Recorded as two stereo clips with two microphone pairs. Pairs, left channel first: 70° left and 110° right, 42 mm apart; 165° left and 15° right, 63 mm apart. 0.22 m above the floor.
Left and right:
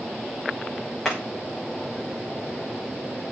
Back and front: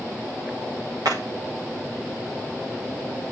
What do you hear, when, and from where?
1.1 s hammering: 10° right, 7.5 m